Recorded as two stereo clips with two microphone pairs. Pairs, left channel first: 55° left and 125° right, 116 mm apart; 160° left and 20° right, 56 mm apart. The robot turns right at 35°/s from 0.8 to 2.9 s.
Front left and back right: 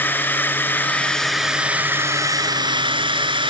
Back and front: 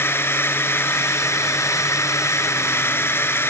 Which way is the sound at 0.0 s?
125° left.